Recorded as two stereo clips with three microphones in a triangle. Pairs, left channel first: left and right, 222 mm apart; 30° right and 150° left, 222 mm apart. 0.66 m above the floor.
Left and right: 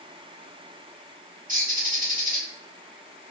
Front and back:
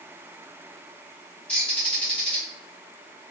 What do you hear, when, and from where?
1.5 s a bird: 110° right, 1.1 m